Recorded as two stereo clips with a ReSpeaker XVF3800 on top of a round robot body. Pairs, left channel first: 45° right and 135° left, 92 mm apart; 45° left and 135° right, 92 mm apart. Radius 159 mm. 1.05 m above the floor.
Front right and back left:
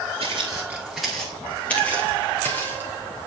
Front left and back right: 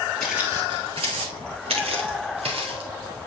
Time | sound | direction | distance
0.2 | footsteps | 130° left | 1.0 m